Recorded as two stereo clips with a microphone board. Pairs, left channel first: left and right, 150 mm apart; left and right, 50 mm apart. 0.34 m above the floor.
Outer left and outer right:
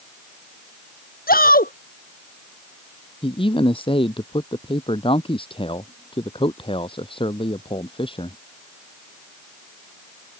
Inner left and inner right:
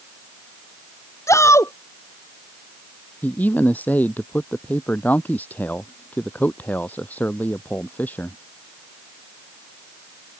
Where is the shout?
75° left (ahead or behind).